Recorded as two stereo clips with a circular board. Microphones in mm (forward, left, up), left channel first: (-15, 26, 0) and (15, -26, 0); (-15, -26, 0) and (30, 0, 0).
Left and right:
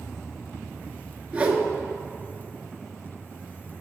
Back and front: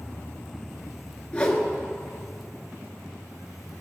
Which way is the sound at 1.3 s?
95° right.